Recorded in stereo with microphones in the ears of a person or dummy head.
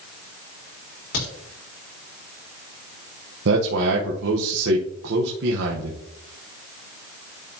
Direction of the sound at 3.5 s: 65° right (ahead or behind).